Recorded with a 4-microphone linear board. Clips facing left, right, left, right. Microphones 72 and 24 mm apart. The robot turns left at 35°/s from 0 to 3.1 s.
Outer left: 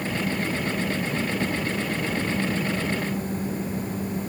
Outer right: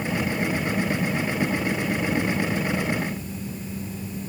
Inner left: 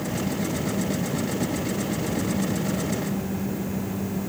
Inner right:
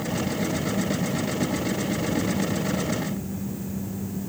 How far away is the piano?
I don't hear a piano.